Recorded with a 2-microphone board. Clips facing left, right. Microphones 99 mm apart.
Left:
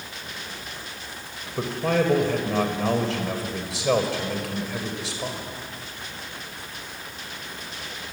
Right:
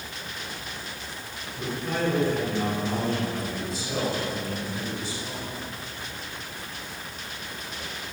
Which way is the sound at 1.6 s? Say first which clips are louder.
Left 6 dB; 80° left.